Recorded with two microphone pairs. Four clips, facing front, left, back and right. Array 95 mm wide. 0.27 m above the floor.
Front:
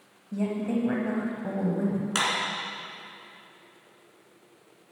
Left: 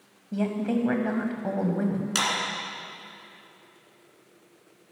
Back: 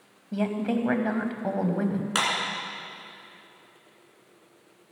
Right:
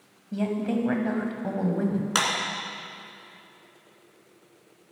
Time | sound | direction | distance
0.3 | a woman speaking | 170° left | 1.4 m
2.1 | a clap | 105° right | 2.5 m